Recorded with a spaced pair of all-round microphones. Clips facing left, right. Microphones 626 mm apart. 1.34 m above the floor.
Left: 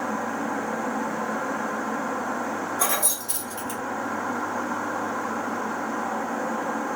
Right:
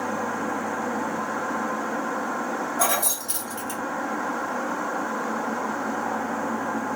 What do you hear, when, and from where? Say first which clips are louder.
2.8 s keys jangling: right 2 dB; 15° right (ahead or behind), 1.2 m